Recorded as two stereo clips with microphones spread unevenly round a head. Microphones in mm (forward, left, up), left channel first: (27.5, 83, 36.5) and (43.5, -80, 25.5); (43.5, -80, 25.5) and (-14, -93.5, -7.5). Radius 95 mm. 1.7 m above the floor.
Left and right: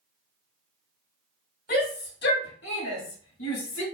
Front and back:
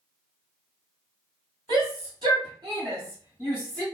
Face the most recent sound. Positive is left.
turn(degrees=95)